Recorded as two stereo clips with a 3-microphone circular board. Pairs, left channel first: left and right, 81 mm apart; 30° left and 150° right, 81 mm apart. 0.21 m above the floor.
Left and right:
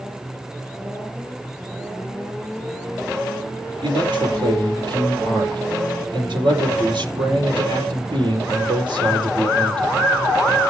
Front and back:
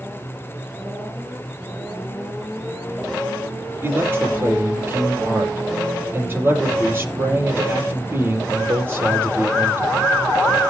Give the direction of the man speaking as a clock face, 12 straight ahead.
3 o'clock.